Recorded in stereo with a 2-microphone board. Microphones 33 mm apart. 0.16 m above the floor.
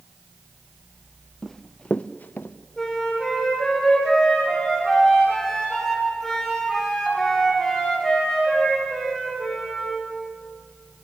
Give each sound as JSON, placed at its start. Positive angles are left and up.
{"t": 1.4, "sound": "running footsteps", "side_deg": 10, "distance_m": 1.3}
{"t": 2.8, "sound": "a flute", "side_deg": 0, "distance_m": 9.5}